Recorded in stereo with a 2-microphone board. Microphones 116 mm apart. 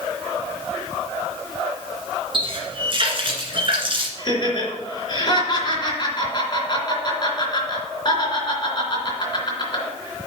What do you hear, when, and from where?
2.3 s a running tap: 45° right (ahead or behind), 1.7 m
4.2 s laughter: 40° left (ahead or behind), 2.5 m